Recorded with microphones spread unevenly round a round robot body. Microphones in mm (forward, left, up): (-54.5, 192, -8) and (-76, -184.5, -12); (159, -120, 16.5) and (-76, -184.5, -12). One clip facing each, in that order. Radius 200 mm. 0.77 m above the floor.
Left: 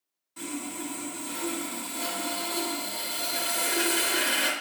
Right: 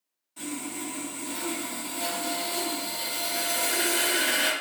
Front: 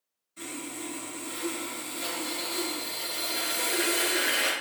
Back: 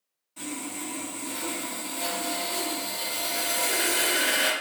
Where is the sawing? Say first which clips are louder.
Even, back 3 dB; 150° left, 1.0 m.